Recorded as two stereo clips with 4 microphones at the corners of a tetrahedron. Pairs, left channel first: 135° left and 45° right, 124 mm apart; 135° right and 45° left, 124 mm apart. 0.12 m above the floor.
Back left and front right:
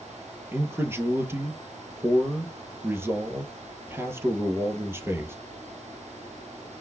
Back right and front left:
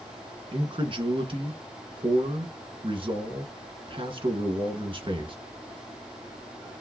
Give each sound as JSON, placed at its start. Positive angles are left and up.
{"t": 0.5, "sound": "a man speaking", "azimuth_deg": 20, "distance_m": 1.7}